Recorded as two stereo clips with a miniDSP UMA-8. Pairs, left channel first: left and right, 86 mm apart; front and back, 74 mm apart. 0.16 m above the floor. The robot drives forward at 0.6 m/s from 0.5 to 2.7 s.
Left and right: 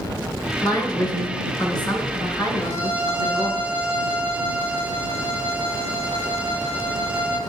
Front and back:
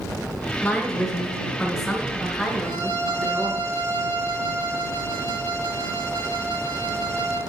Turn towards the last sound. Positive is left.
turn(degrees=150)